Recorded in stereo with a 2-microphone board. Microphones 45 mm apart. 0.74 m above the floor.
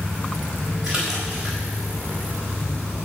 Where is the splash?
15° right (ahead or behind), 4 m.